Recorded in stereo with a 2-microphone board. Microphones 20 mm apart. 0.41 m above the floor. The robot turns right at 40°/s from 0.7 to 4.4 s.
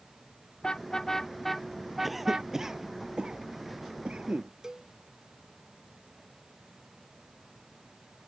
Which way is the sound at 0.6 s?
40° left (ahead or behind).